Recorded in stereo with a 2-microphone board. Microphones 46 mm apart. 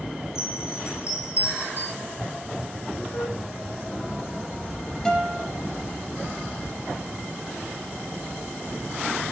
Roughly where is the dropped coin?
Left.